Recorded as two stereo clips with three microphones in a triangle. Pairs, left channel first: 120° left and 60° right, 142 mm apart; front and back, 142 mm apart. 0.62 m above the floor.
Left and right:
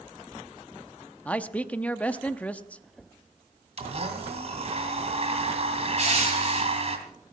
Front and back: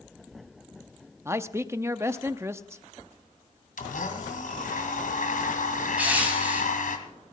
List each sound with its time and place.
1.2 s a man speaking: straight behind, 0.6 m
3.8 s a blender: 15° right, 2 m
6.0 s crushing: 100° right, 5 m